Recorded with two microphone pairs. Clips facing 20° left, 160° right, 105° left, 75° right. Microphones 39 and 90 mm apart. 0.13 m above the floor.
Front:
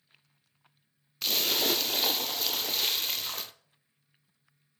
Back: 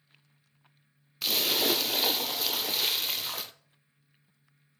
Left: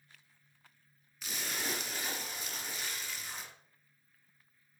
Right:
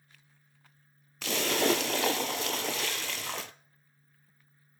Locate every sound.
1.2 s a splash: 70° right, 0.5 m